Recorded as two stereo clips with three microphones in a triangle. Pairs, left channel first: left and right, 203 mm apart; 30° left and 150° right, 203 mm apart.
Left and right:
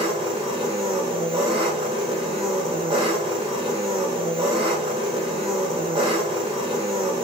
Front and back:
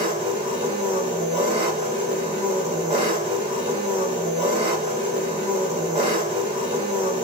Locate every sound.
0.0 s an engine running: 130° right, 1.3 m